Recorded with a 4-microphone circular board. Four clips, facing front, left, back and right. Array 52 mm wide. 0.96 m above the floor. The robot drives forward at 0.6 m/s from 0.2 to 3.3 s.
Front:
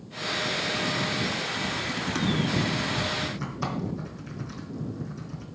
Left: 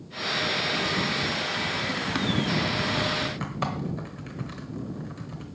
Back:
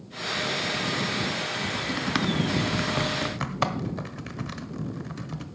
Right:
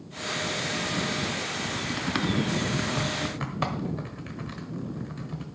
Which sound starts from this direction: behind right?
Typing on a keyboard, at 1.6 s.